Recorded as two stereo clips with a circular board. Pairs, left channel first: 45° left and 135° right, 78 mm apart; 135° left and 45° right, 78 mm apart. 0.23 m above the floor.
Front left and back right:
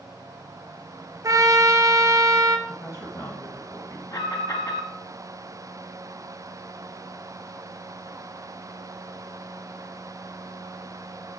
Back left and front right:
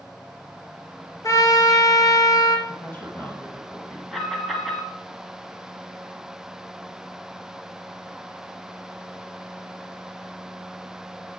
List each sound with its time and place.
1.2 s a trumpet: straight behind, 1.1 m
2.7 s a man speaking: 75° left, 1.3 m
4.1 s an alarm: 45° left, 1.4 m